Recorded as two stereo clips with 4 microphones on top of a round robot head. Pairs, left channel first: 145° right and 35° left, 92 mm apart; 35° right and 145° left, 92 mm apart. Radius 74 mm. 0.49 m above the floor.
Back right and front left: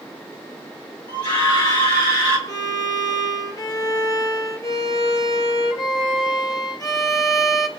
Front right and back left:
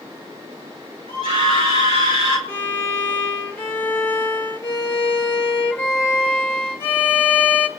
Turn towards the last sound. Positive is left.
turn(degrees=-100)